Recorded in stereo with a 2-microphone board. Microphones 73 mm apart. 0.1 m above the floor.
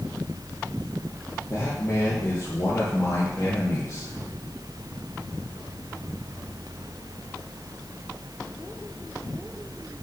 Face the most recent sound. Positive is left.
turn(degrees=55)  # may be behind; listen again after turning